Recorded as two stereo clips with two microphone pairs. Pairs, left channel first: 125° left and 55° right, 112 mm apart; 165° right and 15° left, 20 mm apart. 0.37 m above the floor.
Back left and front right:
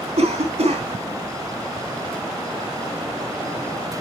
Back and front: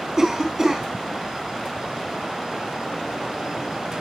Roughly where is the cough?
Ahead right.